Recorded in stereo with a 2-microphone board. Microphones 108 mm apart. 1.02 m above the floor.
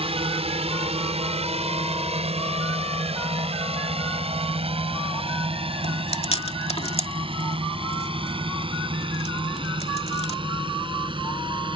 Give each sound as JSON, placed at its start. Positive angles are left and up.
{"t": 0.0, "sound": "a drone", "side_deg": -65}
{"t": 5.8, "sound": "chewing", "side_deg": 75}